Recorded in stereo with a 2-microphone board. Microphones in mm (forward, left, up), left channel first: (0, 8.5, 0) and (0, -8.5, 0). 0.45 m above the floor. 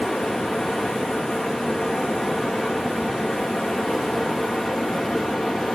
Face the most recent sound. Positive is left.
turn(degrees=85)